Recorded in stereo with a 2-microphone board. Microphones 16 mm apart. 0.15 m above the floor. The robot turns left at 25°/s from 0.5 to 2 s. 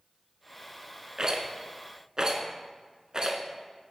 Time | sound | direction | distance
1.2 | a rattle | 45° right (ahead or behind) | 0.8 m